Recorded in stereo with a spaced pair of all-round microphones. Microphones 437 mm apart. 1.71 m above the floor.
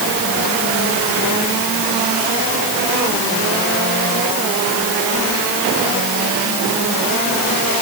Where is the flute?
I don't hear a flute.